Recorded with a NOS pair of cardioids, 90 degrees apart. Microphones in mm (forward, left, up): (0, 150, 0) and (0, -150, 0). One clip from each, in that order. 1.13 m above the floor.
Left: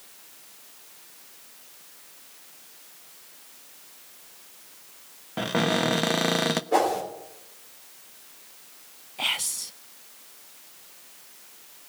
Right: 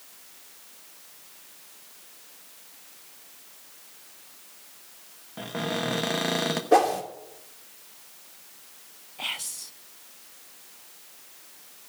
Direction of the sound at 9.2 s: 25° left.